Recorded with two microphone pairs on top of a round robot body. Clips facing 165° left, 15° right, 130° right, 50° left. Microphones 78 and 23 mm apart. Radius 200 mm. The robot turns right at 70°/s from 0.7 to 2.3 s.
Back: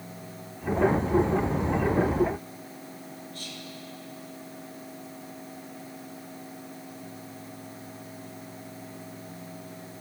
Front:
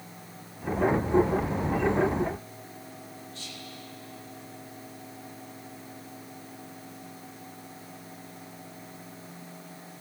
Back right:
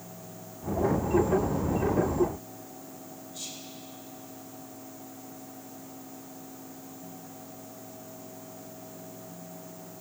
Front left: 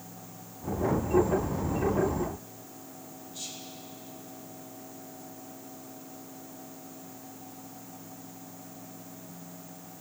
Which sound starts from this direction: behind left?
Whispering, at 3.3 s.